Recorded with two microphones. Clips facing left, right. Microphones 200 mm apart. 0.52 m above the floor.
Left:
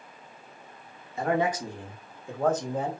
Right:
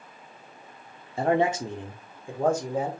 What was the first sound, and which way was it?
A man speaking, 30° right (ahead or behind).